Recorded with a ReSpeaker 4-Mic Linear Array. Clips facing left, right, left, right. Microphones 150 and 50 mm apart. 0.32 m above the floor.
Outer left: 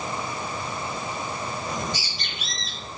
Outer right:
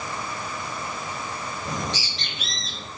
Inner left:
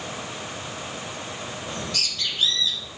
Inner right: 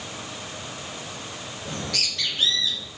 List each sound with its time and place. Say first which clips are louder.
1.6 s a bird: even, inner right 2 dB; 75° right (ahead or behind), 4.5 m